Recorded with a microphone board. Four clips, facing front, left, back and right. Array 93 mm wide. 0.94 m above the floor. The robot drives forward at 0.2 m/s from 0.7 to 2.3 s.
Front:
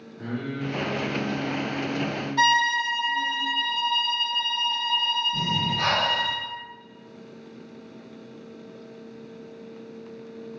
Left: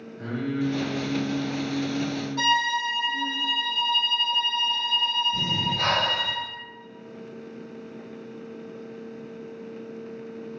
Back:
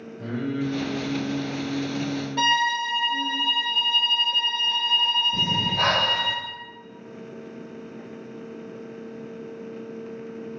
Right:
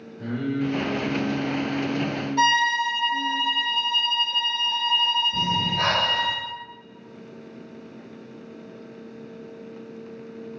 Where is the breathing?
160° right, 0.9 m.